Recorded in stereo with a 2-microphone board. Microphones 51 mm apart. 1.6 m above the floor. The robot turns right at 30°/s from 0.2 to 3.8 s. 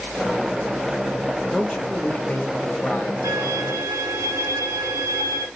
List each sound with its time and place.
1.5 s a man speaking: 10° left, 0.8 m; by 3.1 s 60° left, 0.8 m
3.2 s a violin: 70° right (ahead or behind), 1.1 m; by 5.5 s 85° right, 1.1 m